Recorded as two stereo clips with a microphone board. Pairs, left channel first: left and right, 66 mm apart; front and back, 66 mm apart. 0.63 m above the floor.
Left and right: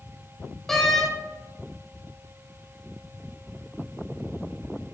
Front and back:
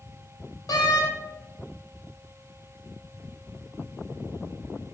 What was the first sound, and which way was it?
A door slam, 5° left.